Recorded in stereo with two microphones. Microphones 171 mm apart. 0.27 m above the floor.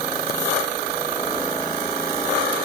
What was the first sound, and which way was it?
Only background noise.